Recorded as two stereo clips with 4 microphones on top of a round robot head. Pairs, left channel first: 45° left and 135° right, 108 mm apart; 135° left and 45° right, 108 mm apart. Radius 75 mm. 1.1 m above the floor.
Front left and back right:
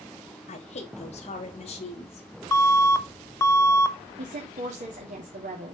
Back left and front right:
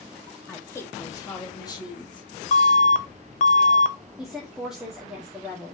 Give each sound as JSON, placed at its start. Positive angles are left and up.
{"t": 0.5, "sound": "a woman speaking", "azimuth_deg": 60, "distance_m": 1.8}
{"t": 2.5, "sound": "an alarm", "azimuth_deg": 115, "distance_m": 0.9}
{"t": 4.2, "sound": "a woman speaking", "azimuth_deg": -130, "distance_m": 2.5}